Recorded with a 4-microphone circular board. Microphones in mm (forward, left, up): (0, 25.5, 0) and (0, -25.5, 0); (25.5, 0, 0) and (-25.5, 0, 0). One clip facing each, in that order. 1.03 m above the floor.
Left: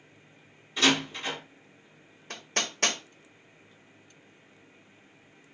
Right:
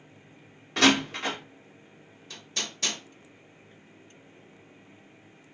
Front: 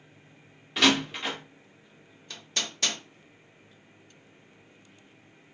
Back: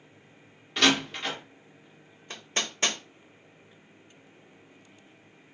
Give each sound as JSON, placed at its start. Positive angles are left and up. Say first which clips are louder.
{"t": 0.8, "sound": "a door slam", "louder": "right 3 dB, front 1 dB", "azimuth_deg": -90, "distance_m": 1.4}
{"t": 2.3, "sound": "hammering", "louder": "left 4 dB, back 2 dB", "azimuth_deg": 120, "distance_m": 0.8}